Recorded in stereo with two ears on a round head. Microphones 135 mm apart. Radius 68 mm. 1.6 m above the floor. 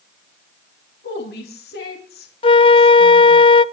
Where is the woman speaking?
70° left (ahead or behind), 3.5 m.